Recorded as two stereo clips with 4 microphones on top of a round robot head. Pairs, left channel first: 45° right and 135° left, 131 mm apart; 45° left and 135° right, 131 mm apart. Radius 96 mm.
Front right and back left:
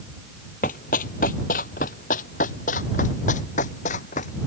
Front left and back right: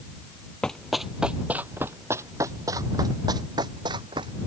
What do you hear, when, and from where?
0.6 s running footsteps: 40° right; by 4.3 s 75° right